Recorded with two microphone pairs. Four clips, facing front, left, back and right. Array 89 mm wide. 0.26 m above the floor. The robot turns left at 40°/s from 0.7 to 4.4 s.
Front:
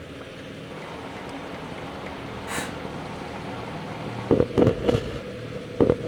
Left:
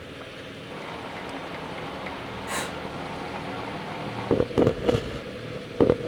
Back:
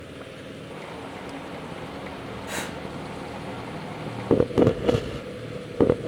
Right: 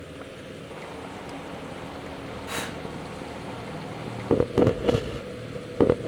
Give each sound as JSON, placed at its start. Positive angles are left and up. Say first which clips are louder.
{"t": 2.5, "sound": "breathing", "louder": "left 2 dB, front 2 dB", "azimuth_deg": 50, "distance_m": 4.0}